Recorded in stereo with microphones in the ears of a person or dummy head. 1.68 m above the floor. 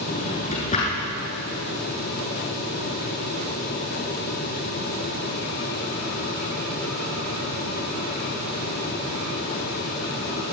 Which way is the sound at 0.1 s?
40° left (ahead or behind).